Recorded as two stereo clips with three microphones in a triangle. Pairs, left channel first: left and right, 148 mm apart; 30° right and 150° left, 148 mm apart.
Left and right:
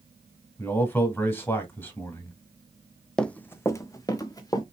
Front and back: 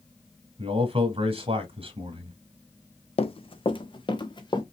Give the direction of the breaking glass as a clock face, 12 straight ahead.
I don't hear breaking glass.